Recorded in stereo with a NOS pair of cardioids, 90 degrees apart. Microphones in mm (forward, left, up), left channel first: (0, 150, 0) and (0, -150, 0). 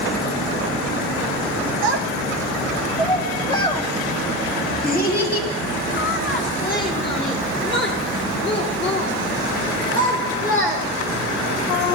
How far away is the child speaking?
About 0.9 m.